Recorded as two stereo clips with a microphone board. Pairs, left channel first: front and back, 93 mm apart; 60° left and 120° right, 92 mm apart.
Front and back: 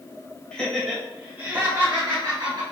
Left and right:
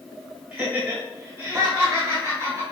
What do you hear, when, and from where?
0.5 s laughter: 65° right, 1.6 m; by 2.6 s 170° right, 2 m